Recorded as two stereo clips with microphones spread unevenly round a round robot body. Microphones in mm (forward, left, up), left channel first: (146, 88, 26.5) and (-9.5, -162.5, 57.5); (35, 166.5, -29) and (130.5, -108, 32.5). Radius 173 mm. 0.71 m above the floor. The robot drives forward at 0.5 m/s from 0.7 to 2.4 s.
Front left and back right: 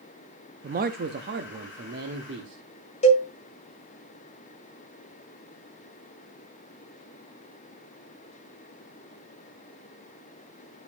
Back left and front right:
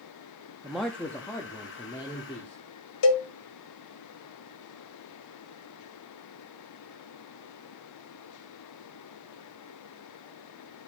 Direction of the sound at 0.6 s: 175° right.